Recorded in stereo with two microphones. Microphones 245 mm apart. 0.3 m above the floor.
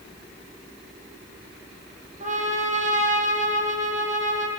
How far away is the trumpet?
About 9 m.